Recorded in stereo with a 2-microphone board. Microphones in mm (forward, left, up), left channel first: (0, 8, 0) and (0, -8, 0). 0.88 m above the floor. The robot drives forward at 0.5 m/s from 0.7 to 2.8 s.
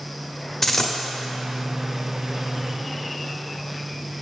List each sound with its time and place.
0.6 s a dropped coin: 25° left (ahead or behind), 1.0 m